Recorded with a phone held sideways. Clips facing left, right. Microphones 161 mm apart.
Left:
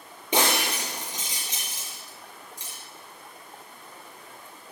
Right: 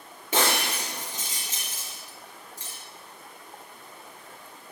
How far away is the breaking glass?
About 4.5 m.